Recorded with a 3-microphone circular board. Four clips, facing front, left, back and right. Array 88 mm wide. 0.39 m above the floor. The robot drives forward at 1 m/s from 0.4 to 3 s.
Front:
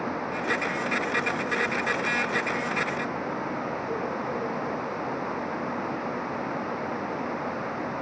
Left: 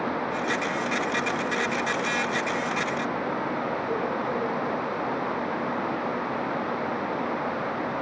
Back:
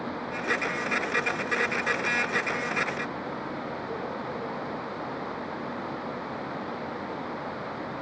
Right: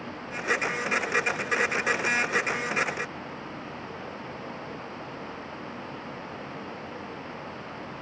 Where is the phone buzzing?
I don't hear a phone buzzing.